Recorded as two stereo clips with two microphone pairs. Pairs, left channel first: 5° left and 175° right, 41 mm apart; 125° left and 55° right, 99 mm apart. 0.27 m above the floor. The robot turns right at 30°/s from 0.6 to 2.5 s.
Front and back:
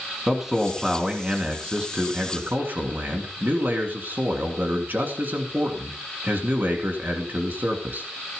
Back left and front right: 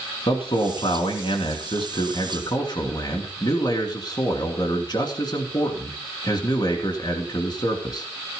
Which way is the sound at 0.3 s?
105° left.